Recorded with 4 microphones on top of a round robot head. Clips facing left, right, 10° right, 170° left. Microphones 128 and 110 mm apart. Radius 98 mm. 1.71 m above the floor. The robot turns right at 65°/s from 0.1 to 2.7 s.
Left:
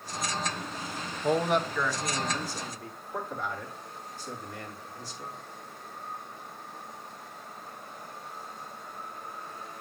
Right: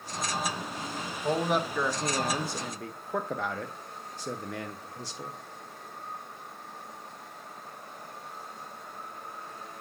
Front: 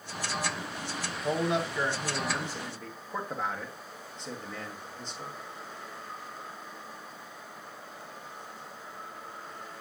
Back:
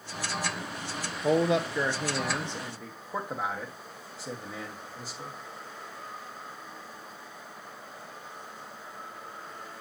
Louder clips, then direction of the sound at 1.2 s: Left 2 dB, back 4 dB; 165° left.